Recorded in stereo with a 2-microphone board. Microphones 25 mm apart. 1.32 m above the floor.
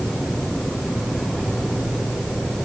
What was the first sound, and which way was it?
Only background noise.